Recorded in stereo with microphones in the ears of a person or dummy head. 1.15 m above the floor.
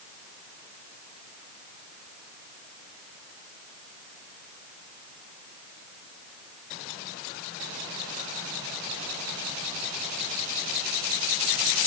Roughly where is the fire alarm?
I don't hear a fire alarm.